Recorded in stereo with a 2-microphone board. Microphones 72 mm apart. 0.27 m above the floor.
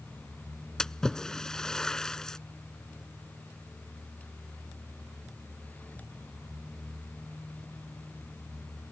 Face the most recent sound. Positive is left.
turn(degrees=10)  # may be behind; listen again after turning